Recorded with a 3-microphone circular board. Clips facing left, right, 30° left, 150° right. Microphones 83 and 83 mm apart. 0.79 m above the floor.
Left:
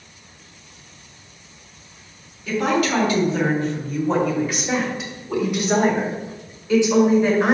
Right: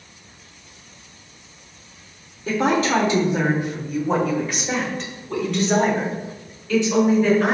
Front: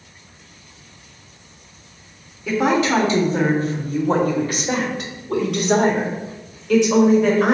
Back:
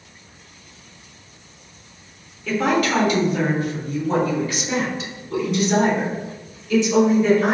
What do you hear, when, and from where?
2.5 s a woman speaking: 45° right, 1.8 m; by 7.5 s 25° left, 4.5 m